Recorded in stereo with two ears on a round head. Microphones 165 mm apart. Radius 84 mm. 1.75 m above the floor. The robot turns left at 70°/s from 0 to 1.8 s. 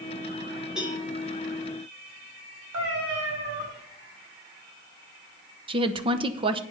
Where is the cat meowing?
75° right (ahead or behind), 5.5 m.